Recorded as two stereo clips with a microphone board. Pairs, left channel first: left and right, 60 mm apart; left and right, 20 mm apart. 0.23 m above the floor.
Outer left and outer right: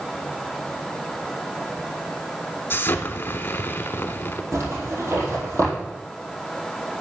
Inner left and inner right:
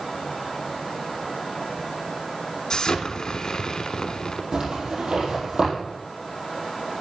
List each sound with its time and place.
2.7 s an explosion: 45° left (ahead or behind), 0.9 m
4.5 s a zipper: 60° right (ahead or behind), 4 m